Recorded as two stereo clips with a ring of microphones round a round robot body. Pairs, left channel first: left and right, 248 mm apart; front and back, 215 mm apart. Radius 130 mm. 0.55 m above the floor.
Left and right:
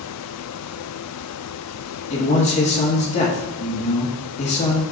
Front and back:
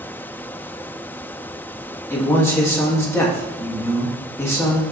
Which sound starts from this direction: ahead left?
A man speaking, at 2.1 s.